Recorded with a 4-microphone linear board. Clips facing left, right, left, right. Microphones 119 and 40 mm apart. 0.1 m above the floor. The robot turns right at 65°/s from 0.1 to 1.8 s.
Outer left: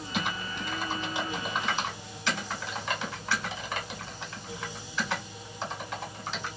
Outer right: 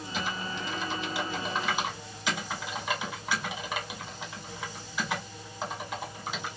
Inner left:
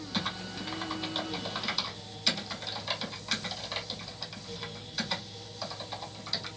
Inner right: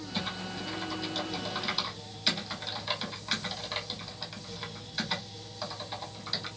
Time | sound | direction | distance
0.1 | typing on a keyboard | 70° left (ahead or behind) | 1.4 m